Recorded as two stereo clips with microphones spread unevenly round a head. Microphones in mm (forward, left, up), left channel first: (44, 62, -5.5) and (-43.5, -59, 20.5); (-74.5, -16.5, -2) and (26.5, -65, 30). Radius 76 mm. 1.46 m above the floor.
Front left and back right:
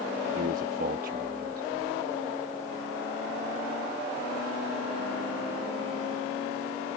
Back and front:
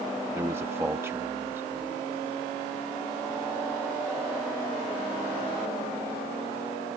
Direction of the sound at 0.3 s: 95° right.